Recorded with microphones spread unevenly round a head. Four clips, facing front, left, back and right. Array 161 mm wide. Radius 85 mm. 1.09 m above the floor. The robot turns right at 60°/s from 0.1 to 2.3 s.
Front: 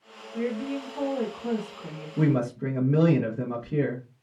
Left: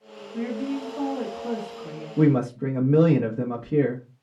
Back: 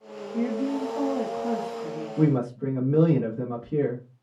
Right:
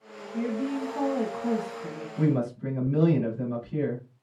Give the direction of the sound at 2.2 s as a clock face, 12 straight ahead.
10 o'clock.